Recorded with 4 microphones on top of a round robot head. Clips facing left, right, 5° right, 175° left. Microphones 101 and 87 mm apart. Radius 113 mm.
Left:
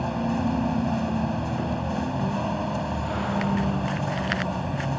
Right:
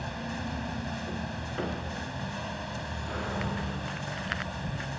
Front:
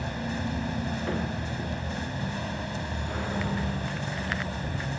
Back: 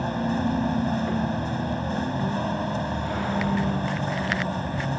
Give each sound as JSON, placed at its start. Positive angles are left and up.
{"t": 0.0, "sound": "a vehicle", "azimuth_deg": 130}